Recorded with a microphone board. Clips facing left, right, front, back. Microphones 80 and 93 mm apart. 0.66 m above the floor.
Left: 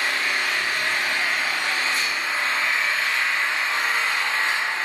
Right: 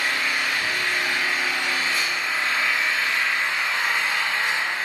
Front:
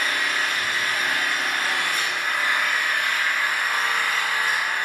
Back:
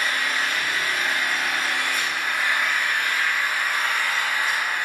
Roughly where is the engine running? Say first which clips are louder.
Even, even; ahead left.